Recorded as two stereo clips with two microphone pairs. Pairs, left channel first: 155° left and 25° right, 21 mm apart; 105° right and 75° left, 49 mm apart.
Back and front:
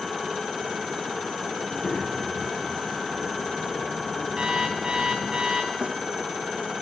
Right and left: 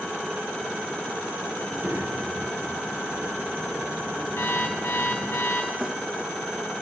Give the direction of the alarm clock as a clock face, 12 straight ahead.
3 o'clock.